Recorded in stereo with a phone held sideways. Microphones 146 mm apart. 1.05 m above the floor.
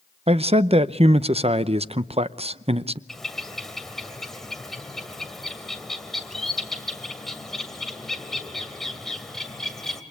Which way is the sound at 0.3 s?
45° right (ahead or behind).